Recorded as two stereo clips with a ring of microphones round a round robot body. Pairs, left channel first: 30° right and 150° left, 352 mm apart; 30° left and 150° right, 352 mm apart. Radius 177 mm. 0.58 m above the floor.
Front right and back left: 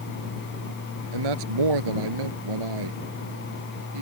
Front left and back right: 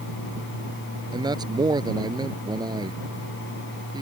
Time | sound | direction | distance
1.1 | a man speaking | 130° left | ?